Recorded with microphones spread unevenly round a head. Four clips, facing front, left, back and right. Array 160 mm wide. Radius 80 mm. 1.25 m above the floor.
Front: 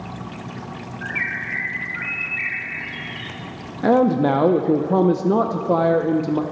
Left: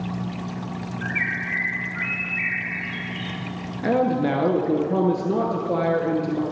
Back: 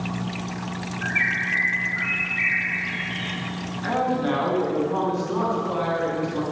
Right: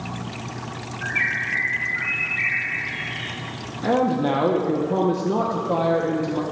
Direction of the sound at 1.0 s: 40° left.